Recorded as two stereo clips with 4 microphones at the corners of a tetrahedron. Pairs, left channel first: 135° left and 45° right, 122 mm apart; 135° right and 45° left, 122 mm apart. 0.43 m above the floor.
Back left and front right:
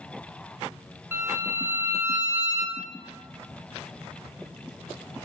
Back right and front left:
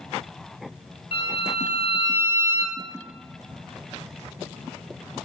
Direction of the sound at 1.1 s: 110° right.